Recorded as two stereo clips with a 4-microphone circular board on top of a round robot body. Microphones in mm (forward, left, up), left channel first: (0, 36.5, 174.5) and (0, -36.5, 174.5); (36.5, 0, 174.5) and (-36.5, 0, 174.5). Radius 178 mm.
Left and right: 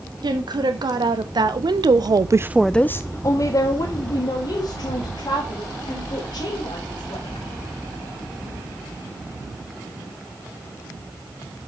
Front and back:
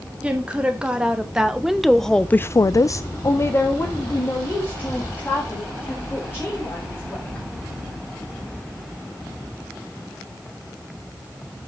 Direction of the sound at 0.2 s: 105° right.